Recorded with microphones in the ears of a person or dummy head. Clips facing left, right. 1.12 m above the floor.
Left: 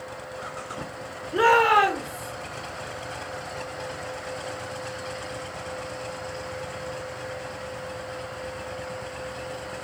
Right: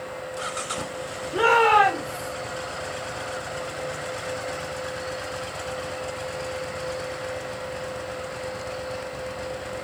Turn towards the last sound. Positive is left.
turn(degrees=25)  # may be behind; listen again after turning